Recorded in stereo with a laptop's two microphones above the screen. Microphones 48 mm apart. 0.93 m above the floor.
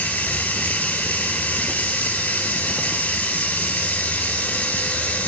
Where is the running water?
40° left (ahead or behind), 4.5 m.